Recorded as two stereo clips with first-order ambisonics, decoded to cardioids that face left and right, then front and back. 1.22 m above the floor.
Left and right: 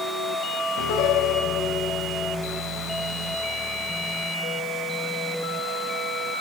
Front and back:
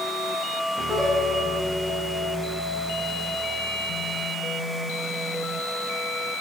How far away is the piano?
About 4.5 m.